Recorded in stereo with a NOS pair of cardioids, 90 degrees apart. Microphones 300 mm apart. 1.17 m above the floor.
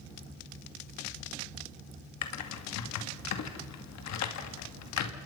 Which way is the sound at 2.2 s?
65° left.